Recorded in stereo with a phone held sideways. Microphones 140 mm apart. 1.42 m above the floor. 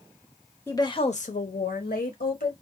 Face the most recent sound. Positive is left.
turn(degrees=70)  # may be behind; listen again after turning